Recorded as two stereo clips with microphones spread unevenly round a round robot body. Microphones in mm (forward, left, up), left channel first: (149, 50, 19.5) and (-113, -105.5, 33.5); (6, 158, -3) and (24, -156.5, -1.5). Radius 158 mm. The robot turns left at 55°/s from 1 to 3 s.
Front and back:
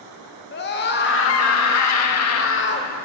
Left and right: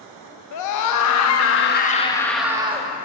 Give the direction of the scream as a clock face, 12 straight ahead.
9 o'clock.